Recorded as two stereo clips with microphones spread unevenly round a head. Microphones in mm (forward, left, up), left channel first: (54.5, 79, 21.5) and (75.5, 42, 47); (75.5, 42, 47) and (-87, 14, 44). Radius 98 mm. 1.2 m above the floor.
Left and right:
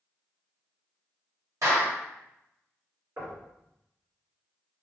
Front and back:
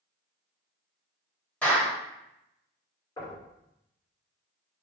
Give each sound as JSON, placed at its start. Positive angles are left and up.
{"t": 1.6, "sound": "a clap", "azimuth_deg": -75, "distance_m": 2.0}
{"t": 3.2, "sound": "knocking", "azimuth_deg": -60, "distance_m": 2.0}